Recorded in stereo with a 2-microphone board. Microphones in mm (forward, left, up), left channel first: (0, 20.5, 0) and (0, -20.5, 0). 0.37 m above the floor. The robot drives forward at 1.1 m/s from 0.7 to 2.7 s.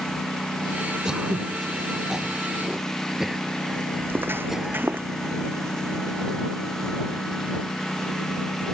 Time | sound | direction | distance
0.0 | a lawn mower | 10° left (ahead or behind) | ?
1.1 | throat clearing | 20° right (ahead or behind) | ?
4.0 | footsteps | 55° right (ahead or behind) | ?